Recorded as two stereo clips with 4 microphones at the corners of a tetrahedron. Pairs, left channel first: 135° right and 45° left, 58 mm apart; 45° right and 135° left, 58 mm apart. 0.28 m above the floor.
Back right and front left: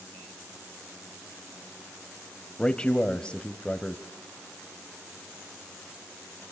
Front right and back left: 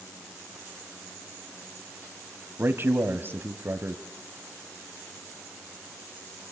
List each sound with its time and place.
2.6 s a man speaking: 160° left, 1.4 m